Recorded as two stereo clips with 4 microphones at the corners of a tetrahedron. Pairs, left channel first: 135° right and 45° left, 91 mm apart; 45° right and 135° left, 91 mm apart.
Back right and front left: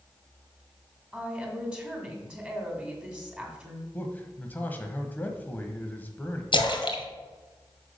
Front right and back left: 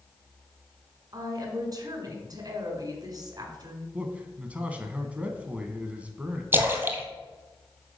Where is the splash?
160° right, 1.5 m.